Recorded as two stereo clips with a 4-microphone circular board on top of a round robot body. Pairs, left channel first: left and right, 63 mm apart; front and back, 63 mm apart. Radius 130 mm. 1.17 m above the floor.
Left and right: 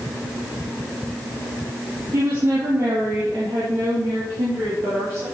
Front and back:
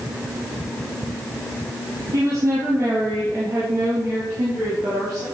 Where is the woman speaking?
145° right, 2 m.